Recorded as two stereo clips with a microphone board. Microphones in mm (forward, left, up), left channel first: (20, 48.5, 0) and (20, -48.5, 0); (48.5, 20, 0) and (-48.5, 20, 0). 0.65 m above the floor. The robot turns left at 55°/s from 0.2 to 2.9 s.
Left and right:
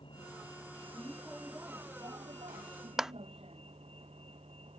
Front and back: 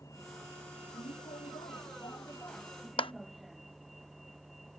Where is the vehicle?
60° left; by 4.8 s 90° right.